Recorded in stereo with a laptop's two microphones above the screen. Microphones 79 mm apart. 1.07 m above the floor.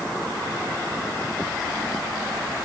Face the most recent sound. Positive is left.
No sound to turn to.